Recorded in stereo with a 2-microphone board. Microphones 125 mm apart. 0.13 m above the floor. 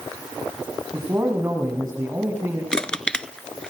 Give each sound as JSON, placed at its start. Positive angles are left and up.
{"t": 0.9, "sound": "a man speaking", "side_deg": -25, "distance_m": 6.0}
{"t": 2.7, "sound": "crushing", "side_deg": 5, "distance_m": 0.6}